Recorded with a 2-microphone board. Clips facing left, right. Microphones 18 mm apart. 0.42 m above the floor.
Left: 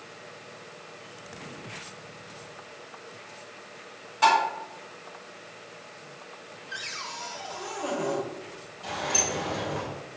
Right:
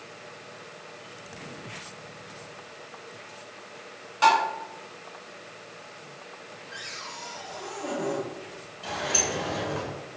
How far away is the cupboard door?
About 0.6 m.